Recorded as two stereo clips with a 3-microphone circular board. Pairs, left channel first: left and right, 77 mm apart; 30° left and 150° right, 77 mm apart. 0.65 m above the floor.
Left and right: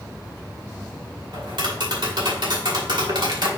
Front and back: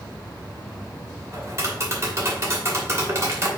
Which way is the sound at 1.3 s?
100° right.